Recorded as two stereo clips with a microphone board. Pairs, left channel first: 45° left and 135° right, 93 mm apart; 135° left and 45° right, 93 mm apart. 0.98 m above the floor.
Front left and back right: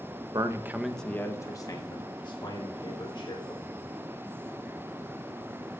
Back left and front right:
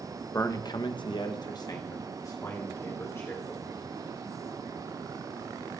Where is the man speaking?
170° right, 0.9 m; by 3.7 s 75° left, 3.5 m.